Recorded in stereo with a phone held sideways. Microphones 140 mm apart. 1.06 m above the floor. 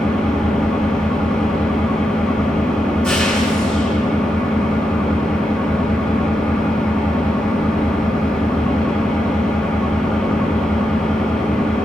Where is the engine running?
5° left (ahead or behind), 9.5 m.